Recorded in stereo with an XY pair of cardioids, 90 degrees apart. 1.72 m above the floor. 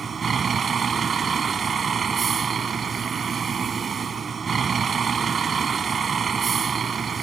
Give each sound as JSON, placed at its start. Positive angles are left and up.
{"t": 0.0, "sound": "a vehicle", "azimuth_deg": -45}